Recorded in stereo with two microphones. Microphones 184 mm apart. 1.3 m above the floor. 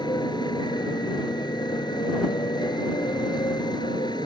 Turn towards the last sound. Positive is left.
turn(degrees=25)  # may be behind; listen again after turning